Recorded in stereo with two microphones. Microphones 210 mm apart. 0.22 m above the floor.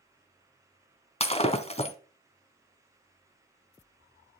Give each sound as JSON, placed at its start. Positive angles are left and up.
{"t": 1.2, "sound": "breaking glass", "side_deg": 30, "distance_m": 1.1}